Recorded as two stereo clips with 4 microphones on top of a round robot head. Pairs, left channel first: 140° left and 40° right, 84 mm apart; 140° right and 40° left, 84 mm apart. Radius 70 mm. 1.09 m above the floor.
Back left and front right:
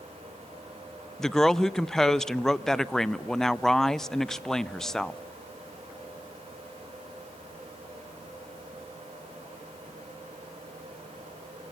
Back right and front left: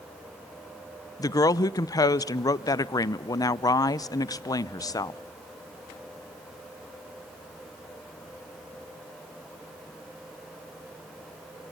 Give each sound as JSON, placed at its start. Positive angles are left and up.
{"t": 1.2, "sound": "a woman speaking", "azimuth_deg": -135, "distance_m": 0.7}